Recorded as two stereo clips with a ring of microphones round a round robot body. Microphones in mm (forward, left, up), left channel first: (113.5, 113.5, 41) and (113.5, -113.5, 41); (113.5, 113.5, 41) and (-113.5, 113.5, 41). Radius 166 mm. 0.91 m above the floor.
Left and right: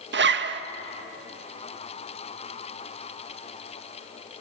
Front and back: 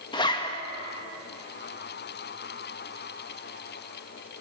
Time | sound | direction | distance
0.1 | a zipper | 70° right | 1.5 m